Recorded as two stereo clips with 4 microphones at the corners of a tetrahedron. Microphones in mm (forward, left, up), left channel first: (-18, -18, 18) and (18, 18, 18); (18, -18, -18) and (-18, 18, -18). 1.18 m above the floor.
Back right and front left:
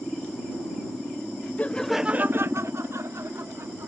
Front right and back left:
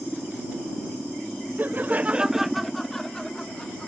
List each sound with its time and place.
1.6 s laughter: 170° left; by 3.9 s 30° left